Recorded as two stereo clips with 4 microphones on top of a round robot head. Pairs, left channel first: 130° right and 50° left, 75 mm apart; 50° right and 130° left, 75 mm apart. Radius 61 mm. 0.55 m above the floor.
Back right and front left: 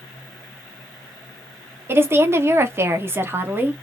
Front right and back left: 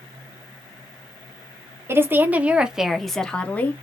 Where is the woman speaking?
90° left, 1.2 m; by 3.8 s straight ahead, 1.2 m.